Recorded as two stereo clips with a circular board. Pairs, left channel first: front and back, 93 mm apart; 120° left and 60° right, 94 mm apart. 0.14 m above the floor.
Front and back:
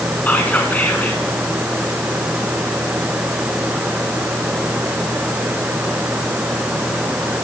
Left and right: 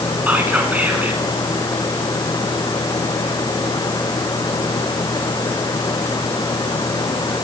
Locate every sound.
0.3 s whispering: 30° right, 1.0 m